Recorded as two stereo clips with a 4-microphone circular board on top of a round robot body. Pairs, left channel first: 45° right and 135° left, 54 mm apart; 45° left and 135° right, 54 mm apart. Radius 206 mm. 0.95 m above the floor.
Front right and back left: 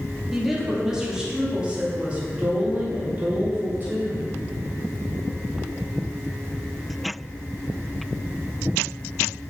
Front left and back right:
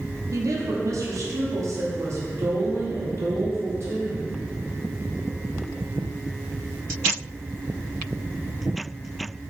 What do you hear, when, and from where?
0.3 s a woman speaking: 140° right, 2.5 m; by 4.3 s 170° right, 3.5 m